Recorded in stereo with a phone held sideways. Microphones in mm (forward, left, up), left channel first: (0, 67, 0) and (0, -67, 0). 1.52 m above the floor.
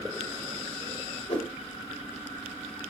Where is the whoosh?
50° left (ahead or behind), 5 m.